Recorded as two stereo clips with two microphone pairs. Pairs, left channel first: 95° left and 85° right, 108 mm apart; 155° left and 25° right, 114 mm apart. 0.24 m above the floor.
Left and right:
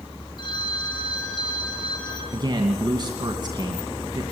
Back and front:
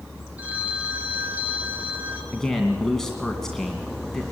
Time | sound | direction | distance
0.4 | a phone ringing | 50° left | 3.5 m
2.3 | a man speaking | 120° right | 2 m